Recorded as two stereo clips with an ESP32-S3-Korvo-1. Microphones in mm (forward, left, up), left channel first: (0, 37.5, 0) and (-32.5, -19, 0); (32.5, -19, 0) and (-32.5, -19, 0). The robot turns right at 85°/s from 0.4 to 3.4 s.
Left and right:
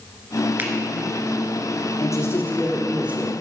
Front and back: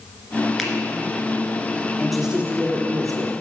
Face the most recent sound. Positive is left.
turn(degrees=-165)